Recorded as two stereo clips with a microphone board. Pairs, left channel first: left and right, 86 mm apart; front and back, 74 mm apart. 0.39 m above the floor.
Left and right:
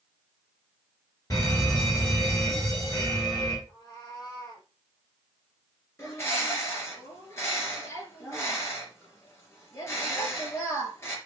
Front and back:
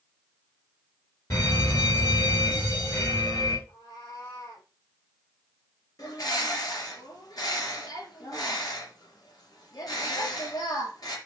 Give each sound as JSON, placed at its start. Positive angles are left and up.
{"t": 1.3, "sound": "a fire alarm", "azimuth_deg": 40, "distance_m": 5.0}
{"t": 3.7, "sound": "a cat meowing", "azimuth_deg": 40, "distance_m": 6.0}
{"t": 6.0, "sound": "a bird", "azimuth_deg": 30, "distance_m": 3.5}